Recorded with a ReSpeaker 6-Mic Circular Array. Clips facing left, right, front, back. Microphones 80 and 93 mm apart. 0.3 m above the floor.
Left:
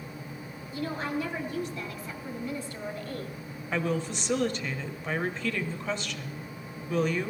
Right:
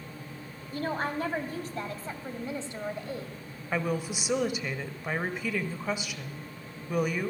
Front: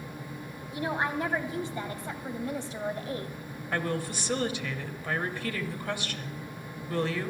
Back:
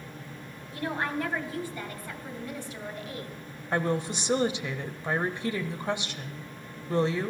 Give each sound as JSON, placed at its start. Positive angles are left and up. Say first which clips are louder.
{"t": 0.7, "sound": "a woman speaking", "louder": "right 1 dB, front 1 dB", "azimuth_deg": -70, "distance_m": 2.0}
{"t": 3.7, "sound": "a woman speaking", "louder": "left 1 dB, back 3 dB", "azimuth_deg": -155, "distance_m": 1.0}